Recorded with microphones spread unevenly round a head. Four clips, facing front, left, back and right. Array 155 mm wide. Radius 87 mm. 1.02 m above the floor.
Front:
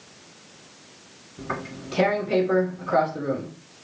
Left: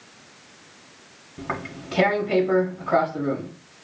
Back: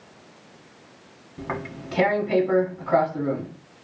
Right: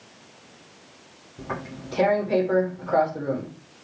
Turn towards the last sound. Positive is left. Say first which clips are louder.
# left 2 dB, back 1 dB
turn(degrees=100)